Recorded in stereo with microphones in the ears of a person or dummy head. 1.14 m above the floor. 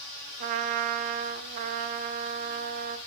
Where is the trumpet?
50° right (ahead or behind), 1.3 m.